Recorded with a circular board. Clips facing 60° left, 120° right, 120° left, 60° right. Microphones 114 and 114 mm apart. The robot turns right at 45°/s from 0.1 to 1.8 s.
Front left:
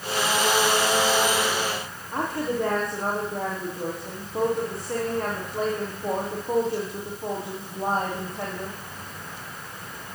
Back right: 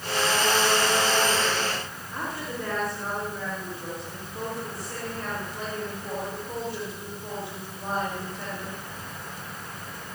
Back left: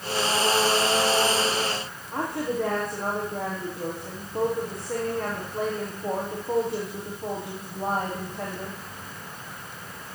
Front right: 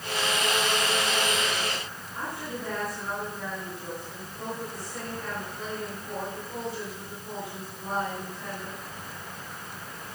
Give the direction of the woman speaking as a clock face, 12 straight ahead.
9 o'clock.